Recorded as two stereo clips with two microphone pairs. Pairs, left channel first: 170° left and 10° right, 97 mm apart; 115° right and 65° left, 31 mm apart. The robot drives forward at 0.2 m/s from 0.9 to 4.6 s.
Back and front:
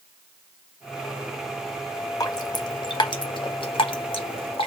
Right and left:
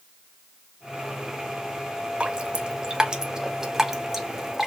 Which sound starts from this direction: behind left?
Dripping, at 2.2 s.